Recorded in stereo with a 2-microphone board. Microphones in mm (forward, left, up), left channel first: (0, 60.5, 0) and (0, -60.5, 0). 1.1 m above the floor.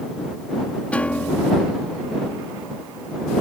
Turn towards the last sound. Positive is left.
turn(degrees=10)  # may be behind; listen again after turning